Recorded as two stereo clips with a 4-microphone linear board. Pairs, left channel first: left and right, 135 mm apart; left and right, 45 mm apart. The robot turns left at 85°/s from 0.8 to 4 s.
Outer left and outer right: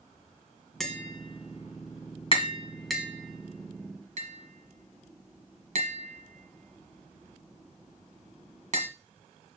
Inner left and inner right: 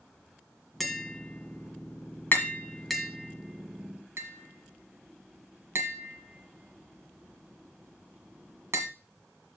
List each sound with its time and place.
0.8 s tapping: centre (ahead or behind), 1.6 m; by 8.9 s 60° right (ahead or behind), 1.6 m